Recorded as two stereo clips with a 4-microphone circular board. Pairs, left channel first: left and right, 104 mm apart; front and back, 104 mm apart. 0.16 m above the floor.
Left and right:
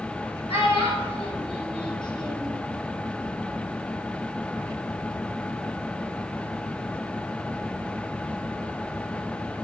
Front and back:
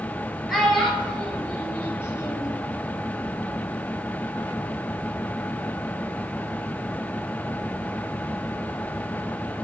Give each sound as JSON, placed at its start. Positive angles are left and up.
{"t": 0.5, "sound": "a child speaking", "azimuth_deg": 90, "distance_m": 2.5}